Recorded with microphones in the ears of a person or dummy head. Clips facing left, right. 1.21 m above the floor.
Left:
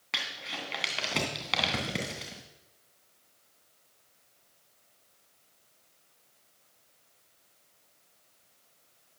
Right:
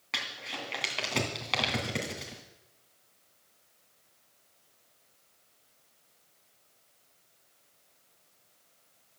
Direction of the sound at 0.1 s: 5° left (ahead or behind).